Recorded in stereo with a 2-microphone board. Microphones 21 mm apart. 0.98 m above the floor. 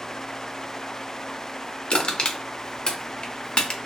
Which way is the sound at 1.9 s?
50° left (ahead or behind).